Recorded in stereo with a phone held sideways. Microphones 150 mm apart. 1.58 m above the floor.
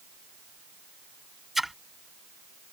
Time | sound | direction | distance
1.6 | a splash | centre (ahead or behind) | ?